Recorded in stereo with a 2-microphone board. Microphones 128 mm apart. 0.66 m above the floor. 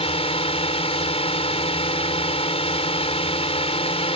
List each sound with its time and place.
0.0 s a drone: 50° left (ahead or behind)